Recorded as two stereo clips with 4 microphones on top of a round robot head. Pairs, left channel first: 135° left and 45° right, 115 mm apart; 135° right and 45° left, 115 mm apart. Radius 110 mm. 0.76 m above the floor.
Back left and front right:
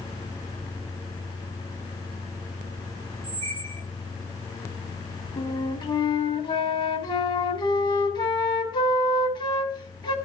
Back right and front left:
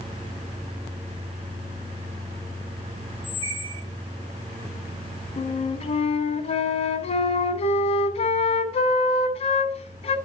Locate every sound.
3.2 s a squeak: 5° left, 9 m
5.4 s a flute: 170° right, 2.5 m